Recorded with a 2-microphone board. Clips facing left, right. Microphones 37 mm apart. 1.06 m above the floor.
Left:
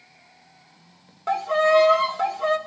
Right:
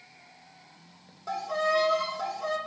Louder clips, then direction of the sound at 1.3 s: Left 8 dB; 55° left (ahead or behind).